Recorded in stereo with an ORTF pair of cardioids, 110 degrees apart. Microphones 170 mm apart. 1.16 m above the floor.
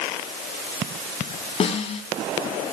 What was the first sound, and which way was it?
A snare drum, 35° left.